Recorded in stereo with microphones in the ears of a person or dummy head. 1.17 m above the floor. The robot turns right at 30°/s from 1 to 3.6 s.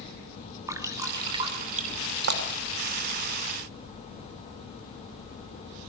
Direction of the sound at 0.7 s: 20° right (ahead or behind).